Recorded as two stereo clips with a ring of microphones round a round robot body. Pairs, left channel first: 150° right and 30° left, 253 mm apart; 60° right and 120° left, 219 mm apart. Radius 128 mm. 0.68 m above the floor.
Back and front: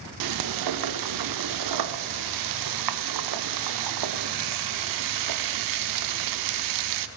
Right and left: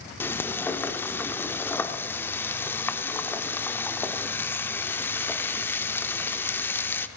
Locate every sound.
0.2 s frying: 20° left, 0.6 m